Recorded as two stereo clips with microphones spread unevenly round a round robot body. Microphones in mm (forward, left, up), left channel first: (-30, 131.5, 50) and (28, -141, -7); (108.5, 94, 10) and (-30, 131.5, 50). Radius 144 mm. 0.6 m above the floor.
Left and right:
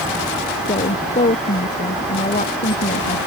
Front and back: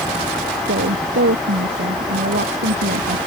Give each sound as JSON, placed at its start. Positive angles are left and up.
{"t": 0.7, "sound": "a woman speaking", "azimuth_deg": 170}